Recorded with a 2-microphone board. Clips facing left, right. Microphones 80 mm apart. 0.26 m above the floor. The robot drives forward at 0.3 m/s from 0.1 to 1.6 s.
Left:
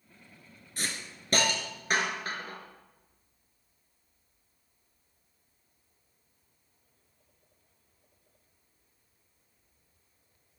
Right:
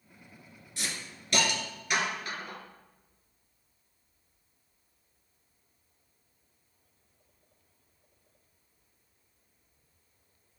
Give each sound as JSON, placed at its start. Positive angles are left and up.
{"t": 0.8, "sound": "a hiss", "side_deg": 40, "distance_m": 2.0}